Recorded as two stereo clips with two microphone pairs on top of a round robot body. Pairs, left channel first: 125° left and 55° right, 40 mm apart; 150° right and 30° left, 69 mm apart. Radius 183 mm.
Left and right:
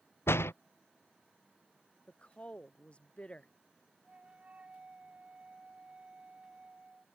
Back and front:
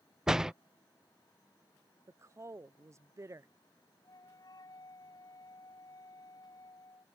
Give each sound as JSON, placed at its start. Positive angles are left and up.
{"t": 0.3, "sound": "a door slam", "azimuth_deg": 115}
{"t": 2.1, "sound": "a woman speaking", "azimuth_deg": 70}
{"t": 4.0, "sound": "a flute", "azimuth_deg": -115}